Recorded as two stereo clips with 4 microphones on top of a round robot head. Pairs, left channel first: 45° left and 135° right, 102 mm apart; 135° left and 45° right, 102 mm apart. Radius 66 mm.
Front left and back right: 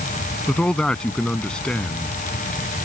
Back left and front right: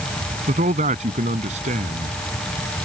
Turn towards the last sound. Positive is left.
turn(degrees=-40)